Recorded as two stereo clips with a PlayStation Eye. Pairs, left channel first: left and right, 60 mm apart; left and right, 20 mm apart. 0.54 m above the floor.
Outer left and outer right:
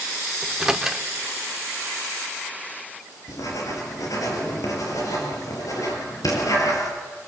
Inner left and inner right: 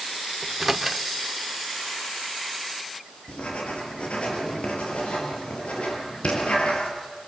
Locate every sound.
0.4 s a microwave: 5° right (ahead or behind), 1.3 m
3.3 s writing: 65° left (ahead or behind), 5.5 m